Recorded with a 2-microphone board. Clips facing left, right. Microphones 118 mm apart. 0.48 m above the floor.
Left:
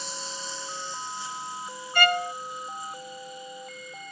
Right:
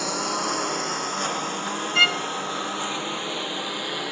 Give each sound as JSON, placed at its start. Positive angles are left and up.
{"t": 0.0, "sound": "a lawn mower", "side_deg": -65}
{"t": 1.9, "sound": "a violin", "side_deg": 45}